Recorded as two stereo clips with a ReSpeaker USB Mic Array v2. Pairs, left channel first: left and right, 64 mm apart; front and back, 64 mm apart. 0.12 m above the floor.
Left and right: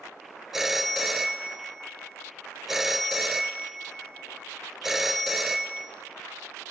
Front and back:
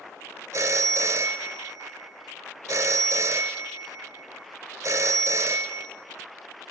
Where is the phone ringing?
175° right, 1.1 m.